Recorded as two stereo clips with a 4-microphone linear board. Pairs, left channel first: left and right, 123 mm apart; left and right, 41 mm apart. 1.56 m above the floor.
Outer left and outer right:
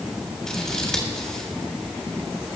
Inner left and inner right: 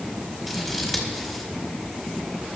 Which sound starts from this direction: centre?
Scissors, at 0.5 s.